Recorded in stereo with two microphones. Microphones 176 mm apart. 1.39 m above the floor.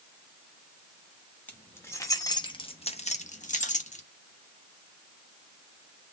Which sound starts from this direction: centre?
Keys jangling, at 1.5 s.